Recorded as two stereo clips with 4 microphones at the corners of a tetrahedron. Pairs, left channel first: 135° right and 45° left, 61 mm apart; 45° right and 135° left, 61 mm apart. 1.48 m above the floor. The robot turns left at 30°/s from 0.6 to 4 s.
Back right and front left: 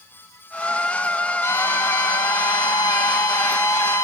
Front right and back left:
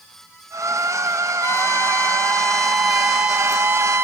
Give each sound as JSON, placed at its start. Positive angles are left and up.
{"t": 1.4, "sound": "a violin", "azimuth_deg": -90, "distance_m": 2.5}